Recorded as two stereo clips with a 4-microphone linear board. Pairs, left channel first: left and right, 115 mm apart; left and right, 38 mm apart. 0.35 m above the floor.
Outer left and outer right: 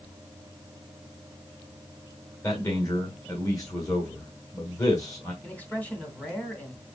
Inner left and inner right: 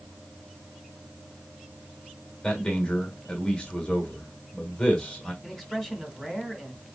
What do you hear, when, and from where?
2.4 s a man speaking: 30° left (ahead or behind), 1.6 m
5.4 s a man speaking: 10° left (ahead or behind), 2 m